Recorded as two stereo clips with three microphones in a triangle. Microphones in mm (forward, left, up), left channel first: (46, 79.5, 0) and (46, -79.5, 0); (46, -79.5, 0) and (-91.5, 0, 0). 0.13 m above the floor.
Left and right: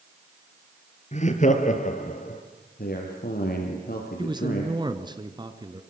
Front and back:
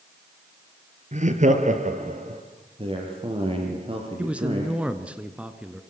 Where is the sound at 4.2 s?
130° right, 1.6 m.